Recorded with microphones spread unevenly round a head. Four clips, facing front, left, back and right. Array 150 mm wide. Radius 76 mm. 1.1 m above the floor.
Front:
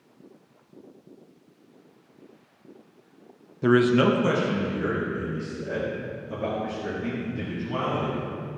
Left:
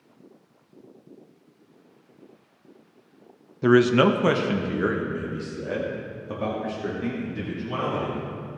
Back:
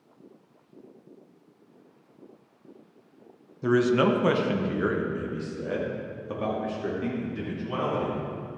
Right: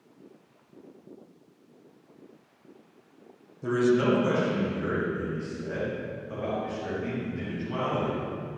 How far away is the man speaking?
About 0.6 m.